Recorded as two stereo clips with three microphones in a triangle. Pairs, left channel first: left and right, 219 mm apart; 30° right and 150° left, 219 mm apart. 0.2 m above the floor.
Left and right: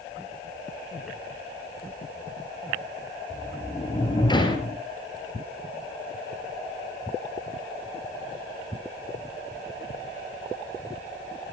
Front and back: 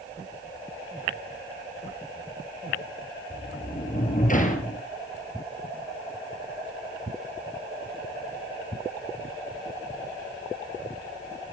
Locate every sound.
3.3 s a sliding door: 20° left, 2.5 m